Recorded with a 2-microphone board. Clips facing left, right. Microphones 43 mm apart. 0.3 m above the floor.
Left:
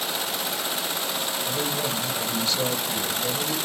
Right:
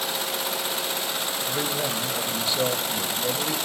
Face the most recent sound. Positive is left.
turn(degrees=-20)  # may be behind; listen again after turning